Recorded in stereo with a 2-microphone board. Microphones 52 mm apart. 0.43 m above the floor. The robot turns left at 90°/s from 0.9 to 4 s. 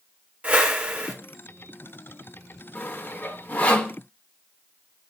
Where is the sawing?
30° left (ahead or behind), 0.7 m; by 4.0 s 10° left (ahead or behind), 0.7 m.